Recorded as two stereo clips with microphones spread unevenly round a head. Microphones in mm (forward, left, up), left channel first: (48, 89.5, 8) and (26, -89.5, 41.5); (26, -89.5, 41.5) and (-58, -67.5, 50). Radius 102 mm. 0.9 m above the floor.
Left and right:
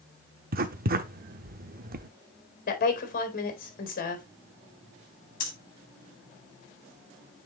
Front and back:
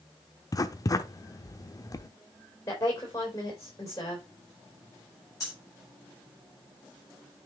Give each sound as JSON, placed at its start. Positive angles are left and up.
{"t": 0.5, "sound": "writing", "azimuth_deg": -65, "distance_m": 0.9}
{"t": 2.7, "sound": "a woman speaking", "azimuth_deg": 45, "distance_m": 4.0}
{"t": 5.4, "sound": "breathing", "azimuth_deg": 45, "distance_m": 5.0}